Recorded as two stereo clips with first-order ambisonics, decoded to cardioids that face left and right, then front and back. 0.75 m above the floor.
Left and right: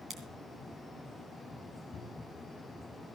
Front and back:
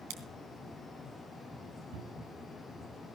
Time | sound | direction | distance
0.1 | scissors | 155° right | 3 m
1.9 | a cupboard door | 155° left | 5.5 m